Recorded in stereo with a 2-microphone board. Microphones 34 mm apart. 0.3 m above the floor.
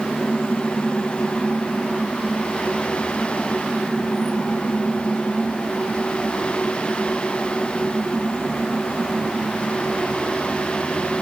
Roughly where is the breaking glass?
I don't hear breaking glass.